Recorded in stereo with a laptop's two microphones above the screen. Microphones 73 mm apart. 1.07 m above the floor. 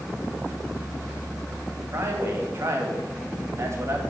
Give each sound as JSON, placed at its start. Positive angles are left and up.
{"t": 1.9, "sound": "a man speaking", "side_deg": -40, "distance_m": 1.7}